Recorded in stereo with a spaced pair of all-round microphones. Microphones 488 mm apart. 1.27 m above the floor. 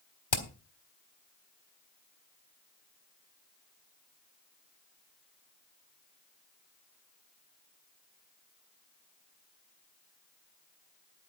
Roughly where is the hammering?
Left.